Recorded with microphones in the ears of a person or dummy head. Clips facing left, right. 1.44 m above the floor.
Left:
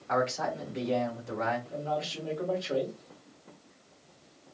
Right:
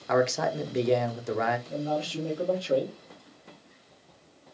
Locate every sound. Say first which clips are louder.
0.1 s a man speaking: right 5 dB; 70° right (ahead or behind), 0.7 m
1.7 s a man speaking: right 3 dB; 35° right (ahead or behind), 1.4 m